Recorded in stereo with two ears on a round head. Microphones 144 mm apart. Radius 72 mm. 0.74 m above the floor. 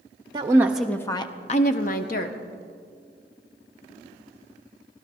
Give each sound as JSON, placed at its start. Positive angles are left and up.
{"t": 0.3, "sound": "a woman speaking", "side_deg": -25, "distance_m": 0.7}